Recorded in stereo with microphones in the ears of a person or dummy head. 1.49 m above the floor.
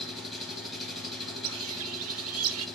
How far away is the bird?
About 0.8 m.